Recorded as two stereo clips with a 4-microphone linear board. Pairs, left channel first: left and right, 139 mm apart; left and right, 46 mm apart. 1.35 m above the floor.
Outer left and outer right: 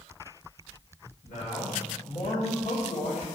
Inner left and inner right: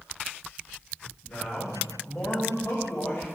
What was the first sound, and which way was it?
A man speaking, 65° left (ahead or behind).